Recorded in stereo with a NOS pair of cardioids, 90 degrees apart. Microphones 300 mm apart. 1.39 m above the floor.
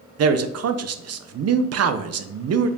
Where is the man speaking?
55° right, 0.8 m.